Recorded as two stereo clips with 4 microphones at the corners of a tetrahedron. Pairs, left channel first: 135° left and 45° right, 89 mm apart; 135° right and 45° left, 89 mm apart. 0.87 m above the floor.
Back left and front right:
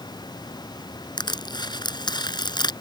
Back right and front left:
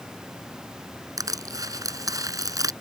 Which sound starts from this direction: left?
Crushing, at 1.2 s.